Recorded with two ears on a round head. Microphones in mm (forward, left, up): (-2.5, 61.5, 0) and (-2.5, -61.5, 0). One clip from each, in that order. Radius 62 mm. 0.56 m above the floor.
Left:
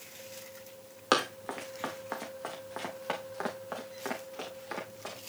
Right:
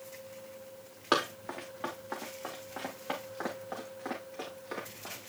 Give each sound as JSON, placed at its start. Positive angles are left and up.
{"t": 1.1, "sound": "running footsteps", "side_deg": 80, "distance_m": 3.0}